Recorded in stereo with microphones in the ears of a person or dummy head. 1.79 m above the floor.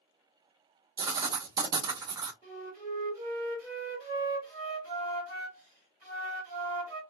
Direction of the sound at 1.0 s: 20° right (ahead or behind).